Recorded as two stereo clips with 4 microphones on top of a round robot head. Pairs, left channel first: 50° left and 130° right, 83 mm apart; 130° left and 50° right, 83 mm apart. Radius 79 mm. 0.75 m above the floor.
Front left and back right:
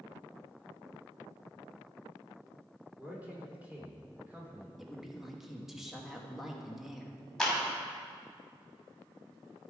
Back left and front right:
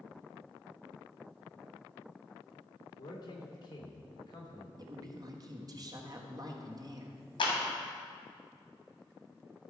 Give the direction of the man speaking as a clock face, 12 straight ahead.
7 o'clock.